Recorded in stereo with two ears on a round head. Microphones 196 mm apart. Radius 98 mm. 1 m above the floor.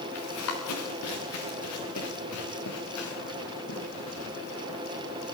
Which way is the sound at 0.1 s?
80° left.